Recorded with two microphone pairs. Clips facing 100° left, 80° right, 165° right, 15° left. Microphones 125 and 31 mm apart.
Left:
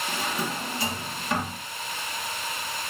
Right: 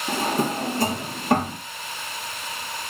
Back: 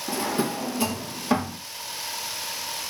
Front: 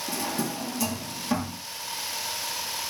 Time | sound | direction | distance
0.1 | a drawer | 115° right | 0.6 m